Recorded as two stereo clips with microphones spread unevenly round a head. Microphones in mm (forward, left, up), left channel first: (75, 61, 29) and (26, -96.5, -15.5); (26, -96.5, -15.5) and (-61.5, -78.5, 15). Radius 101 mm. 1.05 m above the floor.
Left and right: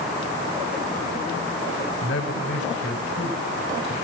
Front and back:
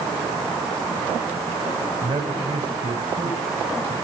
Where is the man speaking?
110° left, 3.5 m; by 3.9 s 120° left, 4.5 m.